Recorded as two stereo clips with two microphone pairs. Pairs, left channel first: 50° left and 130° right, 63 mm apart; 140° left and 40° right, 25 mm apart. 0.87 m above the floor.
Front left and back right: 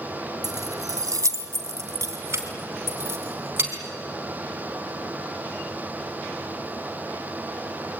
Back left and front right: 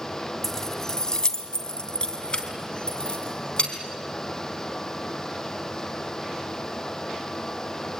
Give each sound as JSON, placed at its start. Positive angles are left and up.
{"t": 0.4, "sound": "keys jangling", "azimuth_deg": -145, "distance_m": 1.2}